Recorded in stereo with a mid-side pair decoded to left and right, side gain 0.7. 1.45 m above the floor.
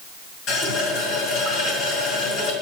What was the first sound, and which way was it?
A running tap, 55° left.